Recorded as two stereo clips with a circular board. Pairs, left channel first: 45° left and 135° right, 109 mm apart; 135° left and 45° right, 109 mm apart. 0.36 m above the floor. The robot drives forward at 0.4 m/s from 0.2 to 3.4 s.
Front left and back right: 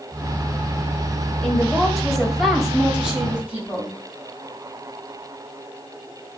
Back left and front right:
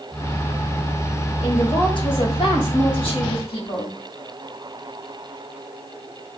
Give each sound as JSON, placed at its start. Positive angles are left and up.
{"t": 1.4, "sound": "a woman speaking", "azimuth_deg": 120, "distance_m": 1.3}